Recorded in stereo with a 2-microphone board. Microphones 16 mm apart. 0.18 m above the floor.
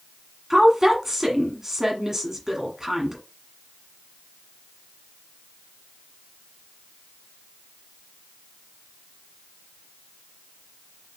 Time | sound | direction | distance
0.5 | a woman speaking | 20° right (ahead or behind) | 1.3 m